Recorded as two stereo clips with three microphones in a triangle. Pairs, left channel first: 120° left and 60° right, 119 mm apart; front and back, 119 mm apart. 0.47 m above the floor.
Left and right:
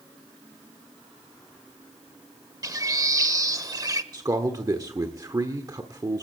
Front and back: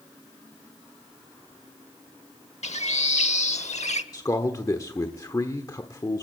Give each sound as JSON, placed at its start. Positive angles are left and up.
{"t": 2.6, "sound": "a bird", "azimuth_deg": -5, "distance_m": 0.8}
{"t": 4.1, "sound": "a man speaking", "azimuth_deg": -35, "distance_m": 1.2}